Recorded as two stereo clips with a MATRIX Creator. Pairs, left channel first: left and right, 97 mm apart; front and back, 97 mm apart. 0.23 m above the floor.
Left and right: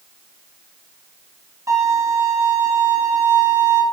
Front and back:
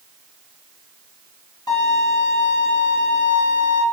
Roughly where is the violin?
Ahead right.